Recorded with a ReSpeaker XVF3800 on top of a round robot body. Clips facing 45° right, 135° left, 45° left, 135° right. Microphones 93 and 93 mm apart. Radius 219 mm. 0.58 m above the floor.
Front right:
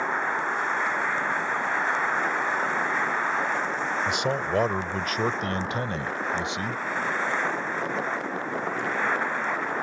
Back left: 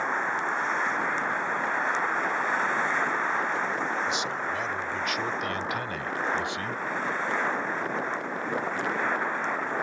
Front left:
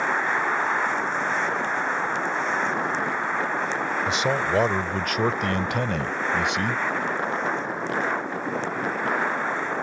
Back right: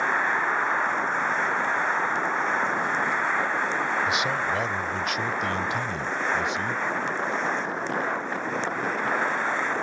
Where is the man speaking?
15° right; by 6.8 s 25° left.